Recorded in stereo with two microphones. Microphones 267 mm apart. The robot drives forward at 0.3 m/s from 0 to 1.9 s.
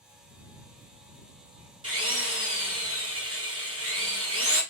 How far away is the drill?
About 2 m.